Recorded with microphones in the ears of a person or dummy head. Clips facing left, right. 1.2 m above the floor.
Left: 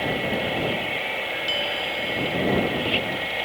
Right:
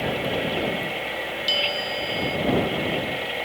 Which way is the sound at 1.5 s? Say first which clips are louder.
Right 2 dB; 25° right (ahead or behind).